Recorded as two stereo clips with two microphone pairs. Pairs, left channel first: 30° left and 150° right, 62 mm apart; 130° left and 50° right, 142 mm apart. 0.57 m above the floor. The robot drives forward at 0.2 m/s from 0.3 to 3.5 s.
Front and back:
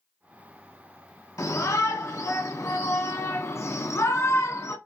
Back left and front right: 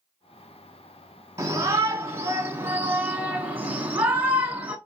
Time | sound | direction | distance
1.4 | a shout | 15° left | 1.4 m